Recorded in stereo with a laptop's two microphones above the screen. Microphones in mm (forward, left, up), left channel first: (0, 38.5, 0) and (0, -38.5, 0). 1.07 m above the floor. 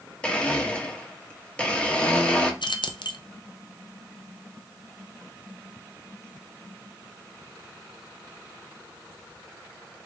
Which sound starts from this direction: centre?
A blender, at 0.2 s.